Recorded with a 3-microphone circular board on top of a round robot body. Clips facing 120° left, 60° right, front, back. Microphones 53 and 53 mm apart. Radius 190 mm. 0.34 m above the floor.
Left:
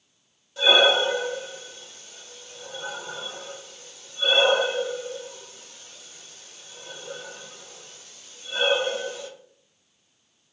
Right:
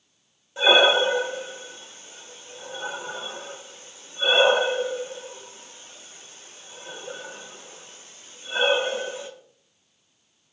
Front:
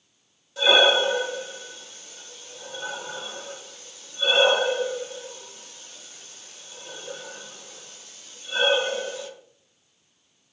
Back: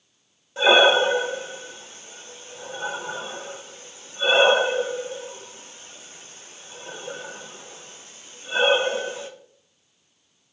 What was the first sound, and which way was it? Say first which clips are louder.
Breathing: right 1 dB, back 3 dB; 125° right.